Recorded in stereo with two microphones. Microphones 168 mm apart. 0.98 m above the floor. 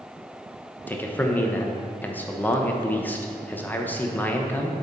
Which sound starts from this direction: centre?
A man speaking, at 0.9 s.